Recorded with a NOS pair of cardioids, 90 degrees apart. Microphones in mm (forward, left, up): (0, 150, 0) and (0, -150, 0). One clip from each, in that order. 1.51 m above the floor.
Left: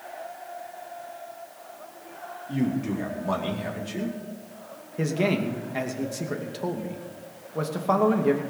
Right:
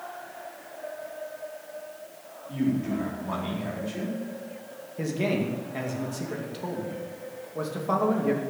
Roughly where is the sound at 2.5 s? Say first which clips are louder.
Even; ahead left.